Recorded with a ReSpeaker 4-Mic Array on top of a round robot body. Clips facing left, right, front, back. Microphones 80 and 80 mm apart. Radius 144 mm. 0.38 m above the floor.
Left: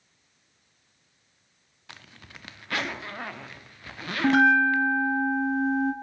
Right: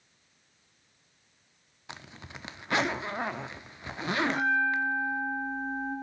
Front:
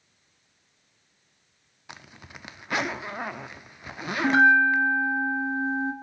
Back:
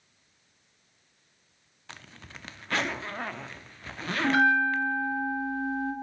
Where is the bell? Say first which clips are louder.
Left 9 dB, front 5 dB; 70° left, 1.0 m.